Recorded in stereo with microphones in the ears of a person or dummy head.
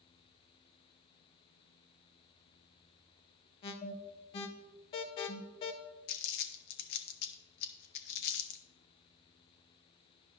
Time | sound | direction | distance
3.6 | an alarm | 30° left (ahead or behind) | 0.6 m
6.1 | crumpling | 70° left (ahead or behind) | 0.7 m